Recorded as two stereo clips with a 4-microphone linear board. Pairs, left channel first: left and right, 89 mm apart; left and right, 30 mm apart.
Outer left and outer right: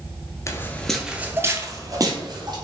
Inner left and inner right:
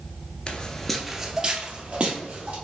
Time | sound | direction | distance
0.5 | footsteps | 35° left (ahead or behind) | 0.7 m